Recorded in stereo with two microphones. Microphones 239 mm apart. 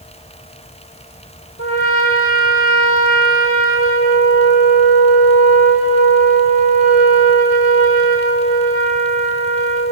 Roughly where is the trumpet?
Left.